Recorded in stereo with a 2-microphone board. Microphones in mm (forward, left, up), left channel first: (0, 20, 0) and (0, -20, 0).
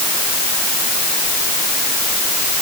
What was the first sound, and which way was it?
Only background noise.